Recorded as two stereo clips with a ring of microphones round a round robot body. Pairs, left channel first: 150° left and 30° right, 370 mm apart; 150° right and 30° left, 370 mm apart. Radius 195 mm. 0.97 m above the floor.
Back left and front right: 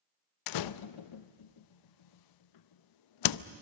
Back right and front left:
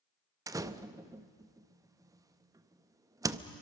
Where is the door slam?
110° left, 0.6 m.